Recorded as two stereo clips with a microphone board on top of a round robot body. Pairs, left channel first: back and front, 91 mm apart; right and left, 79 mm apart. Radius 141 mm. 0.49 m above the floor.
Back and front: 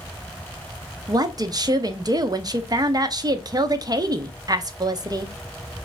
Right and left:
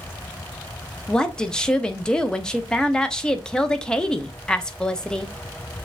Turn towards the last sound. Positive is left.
turn(degrees=-15)